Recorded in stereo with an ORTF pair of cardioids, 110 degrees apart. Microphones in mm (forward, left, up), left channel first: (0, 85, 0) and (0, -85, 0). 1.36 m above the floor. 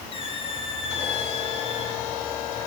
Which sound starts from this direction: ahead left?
A squeak, at 0.1 s.